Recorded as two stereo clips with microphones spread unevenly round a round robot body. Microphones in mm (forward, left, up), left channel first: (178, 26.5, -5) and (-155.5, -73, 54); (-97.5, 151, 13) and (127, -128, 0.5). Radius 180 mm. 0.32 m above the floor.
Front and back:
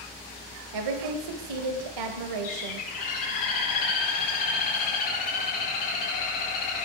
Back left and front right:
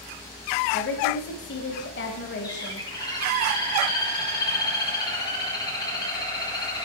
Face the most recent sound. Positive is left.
turn(degrees=50)